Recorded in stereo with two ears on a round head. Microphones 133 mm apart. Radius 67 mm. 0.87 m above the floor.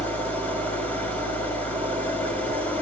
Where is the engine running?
10° left (ahead or behind), 5 m.